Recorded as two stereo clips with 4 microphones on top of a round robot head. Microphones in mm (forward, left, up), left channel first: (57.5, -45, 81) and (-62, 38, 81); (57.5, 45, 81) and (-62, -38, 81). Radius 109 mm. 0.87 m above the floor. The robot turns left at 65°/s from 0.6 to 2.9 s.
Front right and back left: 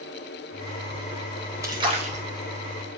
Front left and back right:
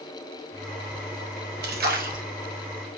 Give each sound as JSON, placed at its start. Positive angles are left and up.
{"t": 1.6, "sound": "a splash", "azimuth_deg": -145, "distance_m": 3.5}